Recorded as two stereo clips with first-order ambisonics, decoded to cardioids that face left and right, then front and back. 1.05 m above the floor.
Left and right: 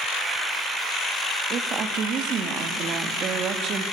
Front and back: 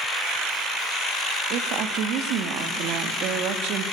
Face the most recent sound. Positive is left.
turn(degrees=-145)